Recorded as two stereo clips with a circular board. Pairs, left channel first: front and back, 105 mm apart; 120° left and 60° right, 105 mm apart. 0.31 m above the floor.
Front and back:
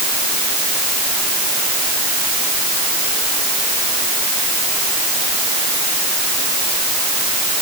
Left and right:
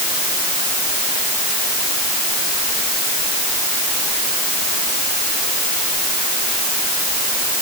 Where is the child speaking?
No child speaking in this recording.